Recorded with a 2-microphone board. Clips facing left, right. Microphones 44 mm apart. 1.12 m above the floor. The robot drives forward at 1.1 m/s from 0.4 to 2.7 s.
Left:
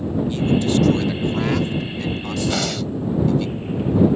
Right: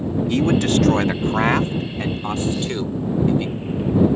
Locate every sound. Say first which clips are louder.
0.3 s a man speaking: right 2 dB; 70° right (ahead or behind); by 3.5 s 30° right (ahead or behind)
2.5 s breathing: left 1 dB; 80° left; by 2.9 s 85° left